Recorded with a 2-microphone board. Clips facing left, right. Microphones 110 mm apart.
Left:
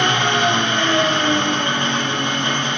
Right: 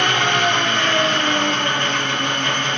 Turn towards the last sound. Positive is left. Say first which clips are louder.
# left 1 dB
turn(degrees=20)  # may be behind; listen again after turning